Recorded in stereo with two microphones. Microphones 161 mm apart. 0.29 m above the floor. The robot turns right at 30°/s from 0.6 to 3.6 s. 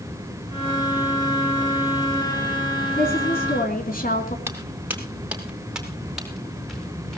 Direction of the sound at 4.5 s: 15° right (ahead or behind).